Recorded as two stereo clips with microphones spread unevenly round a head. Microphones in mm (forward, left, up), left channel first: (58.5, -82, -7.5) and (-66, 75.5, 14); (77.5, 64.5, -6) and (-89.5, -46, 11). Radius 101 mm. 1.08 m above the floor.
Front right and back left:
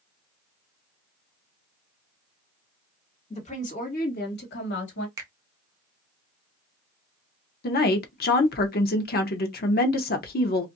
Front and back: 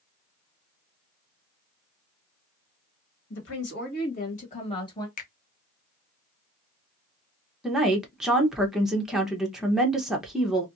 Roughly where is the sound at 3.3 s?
Ahead.